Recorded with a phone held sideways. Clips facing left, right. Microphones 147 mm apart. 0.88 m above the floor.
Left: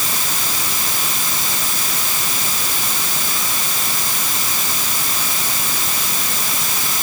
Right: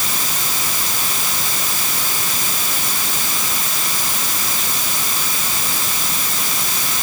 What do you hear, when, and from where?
Only background noise.